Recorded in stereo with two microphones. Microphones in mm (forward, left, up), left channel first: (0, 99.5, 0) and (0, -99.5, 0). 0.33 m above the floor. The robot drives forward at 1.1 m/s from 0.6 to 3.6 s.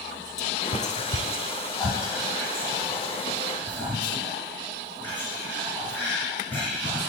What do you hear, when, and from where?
0.4 s whispering: 35° left (ahead or behind), 1.0 m; by 7.1 s 10° left (ahead or behind), 3.5 m